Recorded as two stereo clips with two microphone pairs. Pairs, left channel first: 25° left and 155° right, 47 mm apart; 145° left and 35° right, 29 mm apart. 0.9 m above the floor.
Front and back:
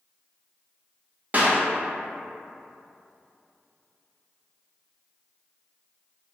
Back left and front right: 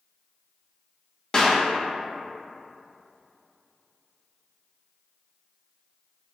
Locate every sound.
1.3 s a clap: 170° right, 0.6 m